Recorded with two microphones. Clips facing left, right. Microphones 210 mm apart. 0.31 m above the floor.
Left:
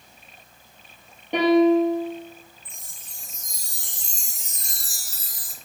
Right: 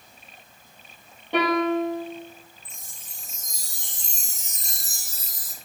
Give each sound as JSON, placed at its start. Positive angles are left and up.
{"t": 1.3, "sound": "a piano", "side_deg": 15, "distance_m": 4.0}
{"t": 2.6, "sound": "a chime", "side_deg": -20, "distance_m": 1.2}